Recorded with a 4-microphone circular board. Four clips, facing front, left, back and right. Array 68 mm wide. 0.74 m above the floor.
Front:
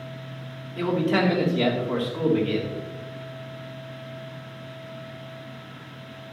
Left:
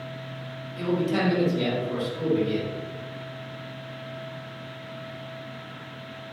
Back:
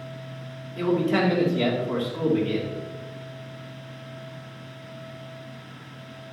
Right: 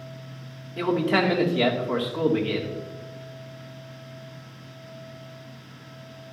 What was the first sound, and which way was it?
A man speaking, 80° right.